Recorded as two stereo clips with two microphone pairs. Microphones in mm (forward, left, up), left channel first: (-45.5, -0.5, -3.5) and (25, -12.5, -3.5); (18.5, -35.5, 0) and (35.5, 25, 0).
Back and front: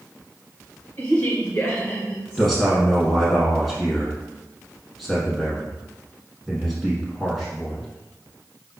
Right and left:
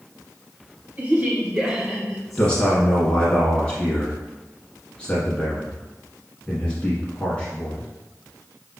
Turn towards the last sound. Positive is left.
turn(degrees=-100)